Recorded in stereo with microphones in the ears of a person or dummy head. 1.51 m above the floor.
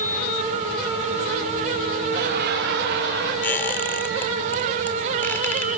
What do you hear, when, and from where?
2.1 s laughter: 60° right (ahead or behind), 3.5 m
3.4 s a squeak: 10° left (ahead or behind), 2.0 m